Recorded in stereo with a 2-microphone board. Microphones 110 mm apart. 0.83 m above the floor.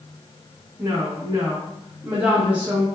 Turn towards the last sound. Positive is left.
turn(degrees=-10)  # may be behind; listen again after turning